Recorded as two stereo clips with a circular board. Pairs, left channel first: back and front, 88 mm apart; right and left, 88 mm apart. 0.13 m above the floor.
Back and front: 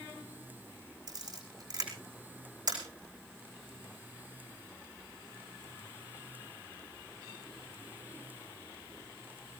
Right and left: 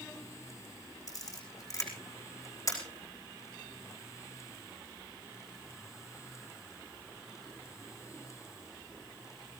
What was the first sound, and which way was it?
A camera shutter, 40° right.